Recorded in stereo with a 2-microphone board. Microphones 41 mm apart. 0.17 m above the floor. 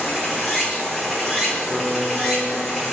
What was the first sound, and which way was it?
Running water, centre (ahead or behind).